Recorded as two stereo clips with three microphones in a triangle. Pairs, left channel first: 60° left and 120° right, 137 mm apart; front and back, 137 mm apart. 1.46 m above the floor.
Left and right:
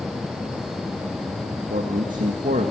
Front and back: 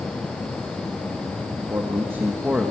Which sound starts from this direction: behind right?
A man speaking, at 1.7 s.